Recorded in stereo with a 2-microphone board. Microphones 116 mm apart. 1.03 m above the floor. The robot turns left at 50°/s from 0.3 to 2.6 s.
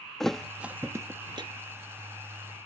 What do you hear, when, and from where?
0.2 s a thud: 5° left (ahead or behind); by 1.5 s 40° right (ahead or behind)